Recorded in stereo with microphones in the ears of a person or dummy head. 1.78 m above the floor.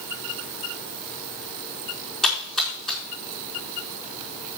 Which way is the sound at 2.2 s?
5° left (ahead or behind).